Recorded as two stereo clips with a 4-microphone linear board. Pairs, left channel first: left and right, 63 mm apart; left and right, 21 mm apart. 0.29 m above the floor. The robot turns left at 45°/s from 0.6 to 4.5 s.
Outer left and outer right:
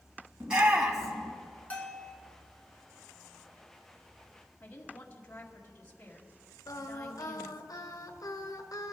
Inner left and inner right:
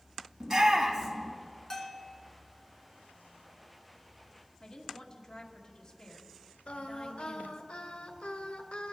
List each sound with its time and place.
0.4 s a shout: 15° right (ahead or behind), 3 m; by 1.3 s 15° left (ahead or behind), 3 m
1.7 s a bell: 25° left (ahead or behind), 1.8 m; by 2.1 s 5° left (ahead or behind), 1.8 m
4.6 s a woman speaking: 25° left (ahead or behind), 2 m
6.7 s singing: 70° left (ahead or behind), 1.3 m